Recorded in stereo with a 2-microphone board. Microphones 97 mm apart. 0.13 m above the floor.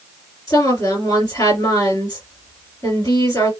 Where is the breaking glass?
I don't hear breaking glass.